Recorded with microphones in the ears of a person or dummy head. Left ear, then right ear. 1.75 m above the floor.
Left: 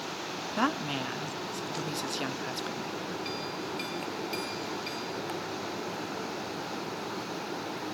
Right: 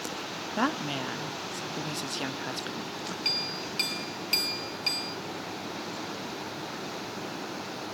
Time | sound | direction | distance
0.6 | a woman speaking | 5° left (ahead or behind) | 0.8 m
3.2 | a clink | 25° right (ahead or behind) | 1.4 m